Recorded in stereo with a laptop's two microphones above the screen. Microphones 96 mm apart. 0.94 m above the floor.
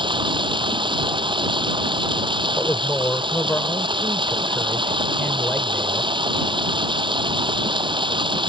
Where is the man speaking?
20° left (ahead or behind).